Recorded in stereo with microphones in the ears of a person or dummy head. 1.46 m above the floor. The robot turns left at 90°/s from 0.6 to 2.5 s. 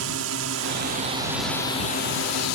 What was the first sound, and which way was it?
A drone, 100° right.